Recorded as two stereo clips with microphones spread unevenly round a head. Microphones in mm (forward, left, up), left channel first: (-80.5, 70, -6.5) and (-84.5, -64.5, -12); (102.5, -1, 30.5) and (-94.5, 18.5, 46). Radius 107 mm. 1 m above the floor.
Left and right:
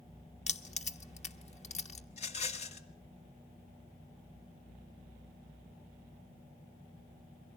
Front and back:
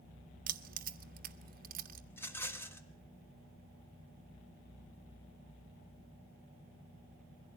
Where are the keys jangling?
125° left, 1.3 m.